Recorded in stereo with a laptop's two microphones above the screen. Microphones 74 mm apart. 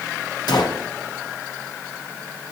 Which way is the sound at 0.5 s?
70° left (ahead or behind).